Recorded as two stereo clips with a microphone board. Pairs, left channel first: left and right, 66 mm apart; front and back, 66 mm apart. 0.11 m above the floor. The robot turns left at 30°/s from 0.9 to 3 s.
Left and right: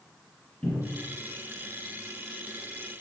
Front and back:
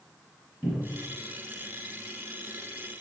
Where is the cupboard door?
110° left, 1.7 m; by 1.1 s 105° left, 1.7 m.